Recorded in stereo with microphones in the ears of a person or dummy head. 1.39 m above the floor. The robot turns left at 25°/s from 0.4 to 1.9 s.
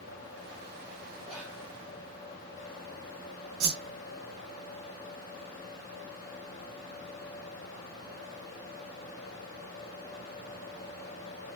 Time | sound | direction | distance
1.2 | whispering | 5° right (ahead or behind) | 0.9 m
3.6 | a whoosh | 50° right (ahead or behind) | 0.5 m